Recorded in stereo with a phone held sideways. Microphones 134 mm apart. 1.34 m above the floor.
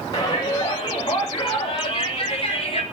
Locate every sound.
0.1 s a shout: 30° left (ahead or behind), 8 m; by 2.8 s 45° left (ahead or behind), 5 m